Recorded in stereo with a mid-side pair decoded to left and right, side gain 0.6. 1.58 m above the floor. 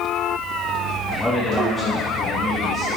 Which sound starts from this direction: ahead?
A man speaking, at 1.1 s.